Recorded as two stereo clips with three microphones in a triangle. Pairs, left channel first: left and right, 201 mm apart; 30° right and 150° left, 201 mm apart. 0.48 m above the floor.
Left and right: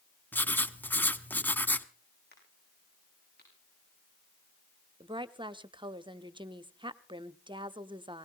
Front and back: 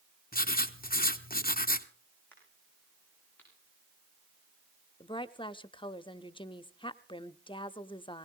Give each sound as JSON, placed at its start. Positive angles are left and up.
{"t": 0.3, "sound": "writing", "azimuth_deg": 10, "distance_m": 0.8}
{"t": 2.3, "sound": "a crack", "azimuth_deg": 50, "distance_m": 8.0}
{"t": 5.0, "sound": "a woman speaking", "azimuth_deg": -55, "distance_m": 0.7}